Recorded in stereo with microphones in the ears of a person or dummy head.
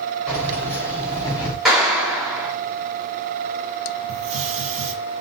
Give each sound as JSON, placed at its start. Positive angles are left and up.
{"t": 0.3, "sound": "keys jangling", "side_deg": 5, "distance_m": 4.0}
{"t": 1.6, "sound": "a clap", "side_deg": 0, "distance_m": 2.5}
{"t": 4.1, "sound": "a hiss", "side_deg": -75, "distance_m": 1.3}